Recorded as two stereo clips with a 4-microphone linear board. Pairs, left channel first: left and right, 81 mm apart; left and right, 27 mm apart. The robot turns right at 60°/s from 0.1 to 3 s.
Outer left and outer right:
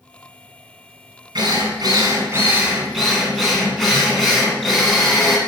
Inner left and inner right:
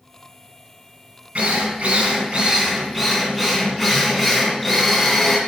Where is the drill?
95° right, 2 m; by 5.4 s 5° left, 2 m.